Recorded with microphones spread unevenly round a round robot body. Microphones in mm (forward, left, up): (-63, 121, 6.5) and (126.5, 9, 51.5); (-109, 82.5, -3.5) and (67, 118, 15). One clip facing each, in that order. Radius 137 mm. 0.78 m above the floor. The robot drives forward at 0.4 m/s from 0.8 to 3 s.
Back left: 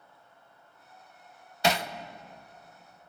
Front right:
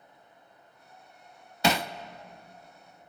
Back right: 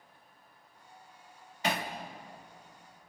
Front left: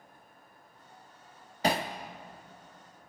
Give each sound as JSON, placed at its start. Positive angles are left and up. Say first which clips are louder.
{"t": 1.6, "sound": "hammering", "louder": "front right 1 dB, front left 4 dB", "azimuth_deg": -55, "distance_m": 0.5}